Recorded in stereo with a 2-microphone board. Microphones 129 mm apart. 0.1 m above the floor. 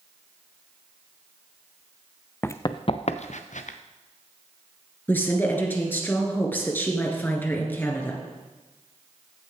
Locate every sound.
2.4 s running footsteps: 15° left (ahead or behind), 0.5 m; by 3.8 s 75° left (ahead or behind), 1.1 m
5.1 s a woman speaking: 15° left (ahead or behind), 1.8 m